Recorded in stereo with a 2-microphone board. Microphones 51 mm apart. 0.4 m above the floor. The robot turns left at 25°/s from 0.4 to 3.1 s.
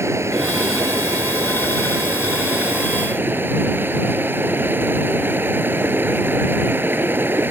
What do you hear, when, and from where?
0.0 s running water: 70° right; by 7.5 s 135° right